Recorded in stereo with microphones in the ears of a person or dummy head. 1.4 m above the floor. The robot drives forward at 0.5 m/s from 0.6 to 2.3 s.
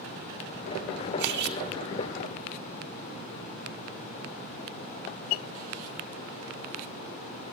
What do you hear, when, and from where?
1.2 s cutlery clinking: 55° right (ahead or behind), 1.7 m; by 1.6 s 50° right (ahead or behind), 1.8 m